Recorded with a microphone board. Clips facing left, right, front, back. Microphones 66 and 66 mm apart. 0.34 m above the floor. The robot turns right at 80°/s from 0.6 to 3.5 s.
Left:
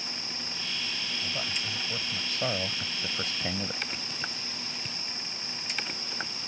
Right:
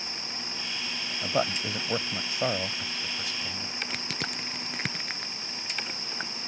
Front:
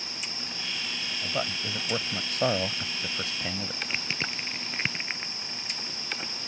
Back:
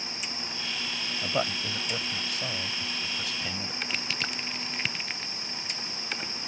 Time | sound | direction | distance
1.2 | a man speaking | 115° right | ?
3.9 | crushing | 65° right | ?